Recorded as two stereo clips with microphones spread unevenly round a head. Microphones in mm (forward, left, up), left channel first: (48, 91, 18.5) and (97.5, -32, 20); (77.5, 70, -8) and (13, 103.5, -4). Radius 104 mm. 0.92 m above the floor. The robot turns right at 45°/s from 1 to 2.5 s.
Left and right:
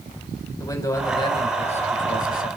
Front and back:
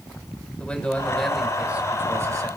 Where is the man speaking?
50° left, 4.5 m; by 2.5 s 115° left, 4.5 m.